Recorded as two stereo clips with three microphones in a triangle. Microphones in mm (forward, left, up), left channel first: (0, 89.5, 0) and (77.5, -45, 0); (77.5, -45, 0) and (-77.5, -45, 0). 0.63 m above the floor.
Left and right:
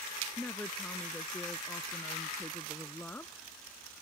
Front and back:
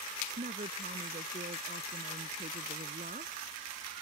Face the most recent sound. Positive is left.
turn(degrees=-160)